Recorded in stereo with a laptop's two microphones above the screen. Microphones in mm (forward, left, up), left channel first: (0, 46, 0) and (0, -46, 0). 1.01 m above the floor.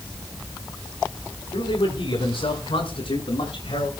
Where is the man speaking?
70° left (ahead or behind), 7.5 m; by 3.9 s 80° left, 9 m.